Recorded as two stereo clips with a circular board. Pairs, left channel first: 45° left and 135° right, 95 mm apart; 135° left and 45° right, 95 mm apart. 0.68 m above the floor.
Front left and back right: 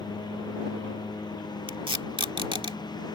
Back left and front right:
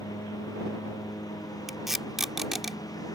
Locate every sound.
0.0 s a lawn mower: 85° left
1.7 s tape being pulled: 130° right